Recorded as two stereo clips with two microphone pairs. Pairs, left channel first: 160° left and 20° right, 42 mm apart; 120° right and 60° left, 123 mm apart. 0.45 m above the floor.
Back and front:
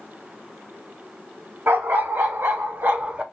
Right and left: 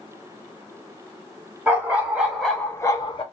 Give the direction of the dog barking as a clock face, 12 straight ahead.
12 o'clock.